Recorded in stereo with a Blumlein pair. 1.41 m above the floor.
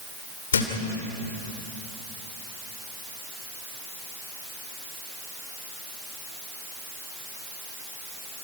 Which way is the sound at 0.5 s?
65° left.